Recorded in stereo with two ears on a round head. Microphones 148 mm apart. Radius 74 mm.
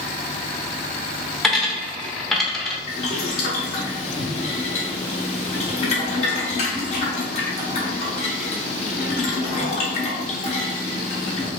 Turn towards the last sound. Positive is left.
turn(degrees=40)  # may be behind; listen again after turning